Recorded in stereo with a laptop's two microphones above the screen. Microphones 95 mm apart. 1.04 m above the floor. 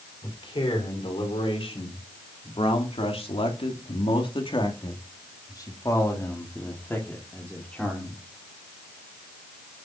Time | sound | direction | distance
0.2 | a man speaking | 65° left (ahead or behind) | 4 m